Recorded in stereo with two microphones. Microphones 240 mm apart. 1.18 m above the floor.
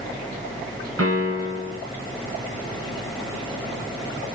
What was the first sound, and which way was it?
A piano, 75° right (ahead or behind).